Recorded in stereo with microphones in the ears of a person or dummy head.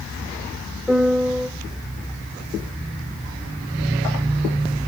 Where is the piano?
Centre (ahead or behind), 2.0 m.